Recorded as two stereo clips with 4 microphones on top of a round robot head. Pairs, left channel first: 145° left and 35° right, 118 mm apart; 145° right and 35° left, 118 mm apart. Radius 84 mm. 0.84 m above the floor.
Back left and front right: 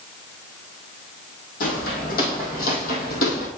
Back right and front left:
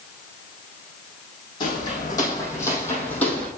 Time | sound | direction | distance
1.6 | footsteps | 160° left | 2.5 m